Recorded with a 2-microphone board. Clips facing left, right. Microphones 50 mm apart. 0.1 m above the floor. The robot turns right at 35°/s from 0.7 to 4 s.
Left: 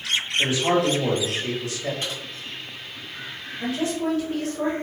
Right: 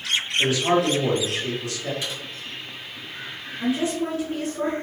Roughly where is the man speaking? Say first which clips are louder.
Right 1 dB; ahead left.